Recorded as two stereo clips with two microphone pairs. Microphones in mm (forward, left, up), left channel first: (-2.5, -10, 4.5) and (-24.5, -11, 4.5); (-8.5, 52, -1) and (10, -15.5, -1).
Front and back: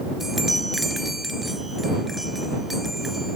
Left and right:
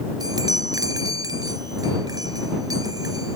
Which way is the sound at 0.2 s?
95° right.